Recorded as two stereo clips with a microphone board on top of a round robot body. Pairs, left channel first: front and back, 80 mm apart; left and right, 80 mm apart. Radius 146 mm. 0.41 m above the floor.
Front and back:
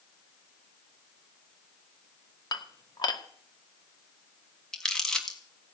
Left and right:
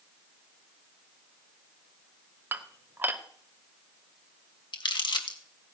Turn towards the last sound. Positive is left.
turn(degrees=80)